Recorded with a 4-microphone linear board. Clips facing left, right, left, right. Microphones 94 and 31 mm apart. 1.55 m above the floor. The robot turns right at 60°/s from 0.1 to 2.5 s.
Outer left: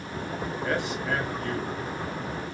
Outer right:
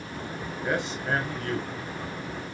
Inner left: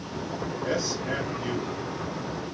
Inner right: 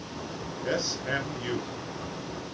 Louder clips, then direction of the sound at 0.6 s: Outer right 1 dB, even; 170° right.